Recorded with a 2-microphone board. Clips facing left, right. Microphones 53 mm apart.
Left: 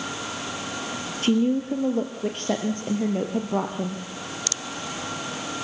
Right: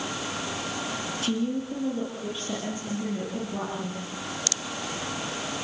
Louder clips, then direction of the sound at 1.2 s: Left 8 dB; 45° left (ahead or behind).